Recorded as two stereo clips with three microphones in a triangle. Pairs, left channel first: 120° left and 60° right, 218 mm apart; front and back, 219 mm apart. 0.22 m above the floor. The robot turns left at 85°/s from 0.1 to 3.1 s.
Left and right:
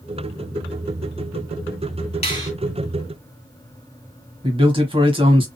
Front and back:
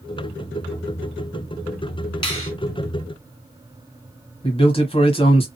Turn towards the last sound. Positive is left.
turn(degrees=-25)